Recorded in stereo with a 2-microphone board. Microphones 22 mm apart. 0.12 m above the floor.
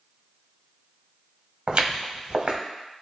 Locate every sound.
1.7 s footsteps: 40° right (ahead or behind), 0.8 m